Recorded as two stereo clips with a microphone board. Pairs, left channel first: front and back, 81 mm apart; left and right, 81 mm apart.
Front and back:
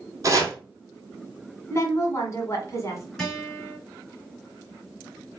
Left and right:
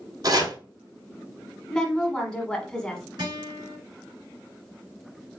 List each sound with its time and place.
0.2 s chopping: 130° right, 2.5 m
1.7 s a woman speaking: 15° left, 1.4 m
3.2 s a guitar: 85° right, 2.5 m